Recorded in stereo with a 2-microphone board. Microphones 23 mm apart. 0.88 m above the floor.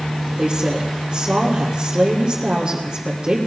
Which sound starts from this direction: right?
A woman speaking, at 0.4 s.